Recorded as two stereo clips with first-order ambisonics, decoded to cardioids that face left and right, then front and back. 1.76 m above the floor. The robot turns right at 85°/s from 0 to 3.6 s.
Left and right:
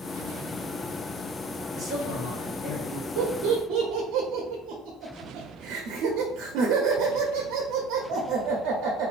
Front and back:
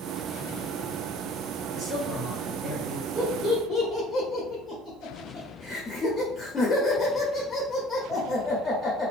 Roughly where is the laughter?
Right.